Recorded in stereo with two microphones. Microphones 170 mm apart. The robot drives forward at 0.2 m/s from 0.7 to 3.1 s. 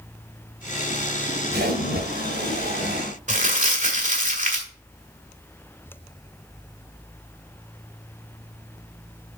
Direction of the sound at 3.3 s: 50° right (ahead or behind).